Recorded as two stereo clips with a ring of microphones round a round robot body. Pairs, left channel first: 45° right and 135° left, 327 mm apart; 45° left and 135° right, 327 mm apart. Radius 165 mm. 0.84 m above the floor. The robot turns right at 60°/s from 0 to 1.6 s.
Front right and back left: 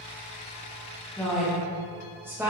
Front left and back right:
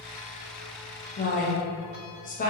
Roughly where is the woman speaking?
Ahead left.